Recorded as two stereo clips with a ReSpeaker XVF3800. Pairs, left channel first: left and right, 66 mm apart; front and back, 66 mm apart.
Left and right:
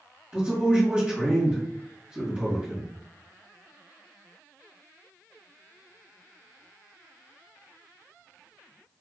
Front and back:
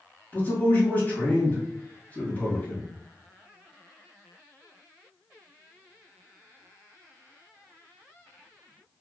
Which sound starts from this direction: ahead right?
A man speaking, at 0.3 s.